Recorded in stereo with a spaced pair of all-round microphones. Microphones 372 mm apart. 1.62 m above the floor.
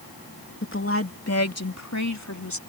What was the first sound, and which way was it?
A woman speaking, 30° left (ahead or behind).